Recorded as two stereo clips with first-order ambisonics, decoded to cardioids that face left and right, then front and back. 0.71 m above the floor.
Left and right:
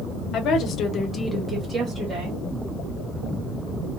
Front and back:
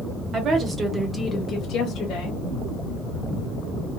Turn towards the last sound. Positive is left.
turn(degrees=-35)